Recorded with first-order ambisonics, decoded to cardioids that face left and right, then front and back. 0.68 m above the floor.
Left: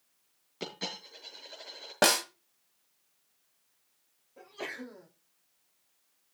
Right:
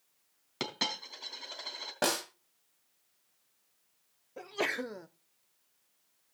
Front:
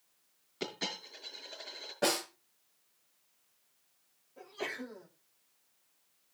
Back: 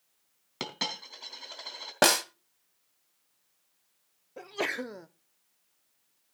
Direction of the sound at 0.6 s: 135° right.